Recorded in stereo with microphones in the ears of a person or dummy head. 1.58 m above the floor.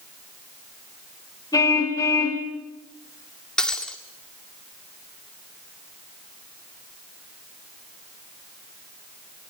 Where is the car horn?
20° left (ahead or behind), 3 m.